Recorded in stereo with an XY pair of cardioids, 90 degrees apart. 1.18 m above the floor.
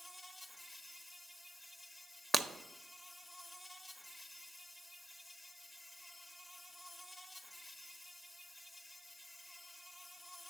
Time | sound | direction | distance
0.0 | an insect | 20° left | 0.8 m
2.3 | breaking glass | 20° right | 0.7 m